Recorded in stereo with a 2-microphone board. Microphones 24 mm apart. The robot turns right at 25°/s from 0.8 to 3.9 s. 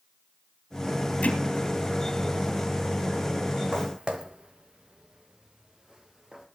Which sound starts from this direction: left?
Hammering, at 1.2 s.